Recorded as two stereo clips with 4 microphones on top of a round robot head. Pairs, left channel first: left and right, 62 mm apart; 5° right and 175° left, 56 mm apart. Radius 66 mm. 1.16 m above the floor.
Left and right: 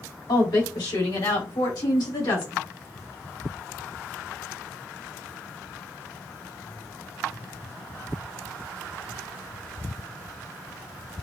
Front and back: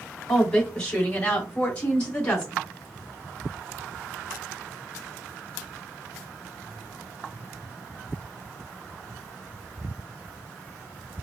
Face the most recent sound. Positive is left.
turn(degrees=65)